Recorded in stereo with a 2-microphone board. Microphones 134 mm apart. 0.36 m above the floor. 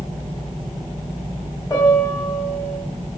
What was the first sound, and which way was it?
A piano, 20° left (ahead or behind).